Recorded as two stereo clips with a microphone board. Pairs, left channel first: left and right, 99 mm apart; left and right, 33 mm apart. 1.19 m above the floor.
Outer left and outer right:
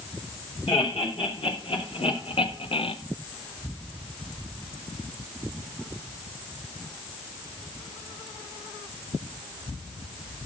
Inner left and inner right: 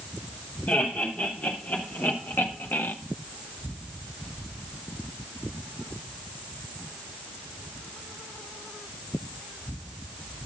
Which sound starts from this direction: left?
Laughter, at 0.7 s.